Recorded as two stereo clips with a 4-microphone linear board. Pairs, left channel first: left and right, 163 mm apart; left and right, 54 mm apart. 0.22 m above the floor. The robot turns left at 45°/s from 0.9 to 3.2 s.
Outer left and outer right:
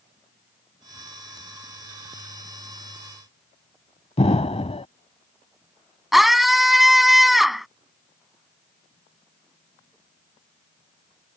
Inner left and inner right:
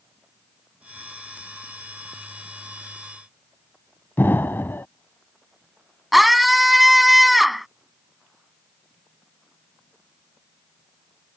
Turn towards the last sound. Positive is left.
turn(degrees=0)  # may be behind; listen again after turning